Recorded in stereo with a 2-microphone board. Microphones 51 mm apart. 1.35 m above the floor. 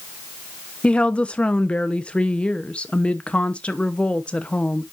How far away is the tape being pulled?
I don't hear tape being pulled.